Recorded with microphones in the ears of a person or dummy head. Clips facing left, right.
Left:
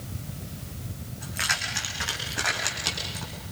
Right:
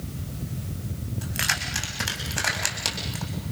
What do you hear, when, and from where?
1.2 s keys jangling: 45° right (ahead or behind), 6.5 m; by 3.3 s 60° right (ahead or behind), 6.5 m